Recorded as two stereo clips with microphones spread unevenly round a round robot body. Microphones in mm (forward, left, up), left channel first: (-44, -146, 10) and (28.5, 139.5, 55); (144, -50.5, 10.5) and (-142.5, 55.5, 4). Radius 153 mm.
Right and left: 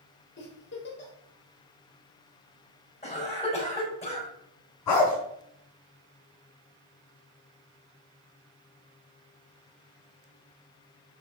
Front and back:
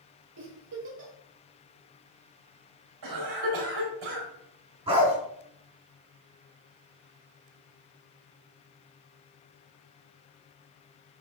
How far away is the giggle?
About 3 m.